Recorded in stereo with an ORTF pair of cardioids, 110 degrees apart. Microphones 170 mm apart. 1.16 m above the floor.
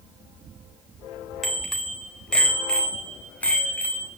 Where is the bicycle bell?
Straight ahead, 3 m; by 4.1 s 10° left, 5.5 m.